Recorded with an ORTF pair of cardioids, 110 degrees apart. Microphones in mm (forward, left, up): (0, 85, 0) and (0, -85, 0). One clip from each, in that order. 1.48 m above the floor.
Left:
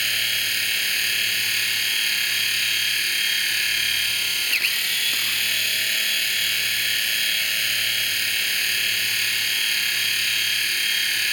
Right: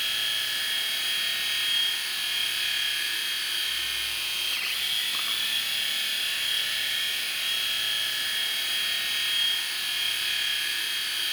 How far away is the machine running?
About 4.5 m.